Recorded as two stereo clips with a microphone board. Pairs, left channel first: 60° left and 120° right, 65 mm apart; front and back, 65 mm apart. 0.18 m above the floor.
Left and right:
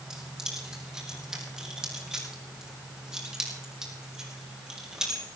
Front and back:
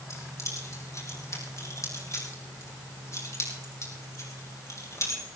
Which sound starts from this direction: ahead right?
Keys jangling, at 0.1 s.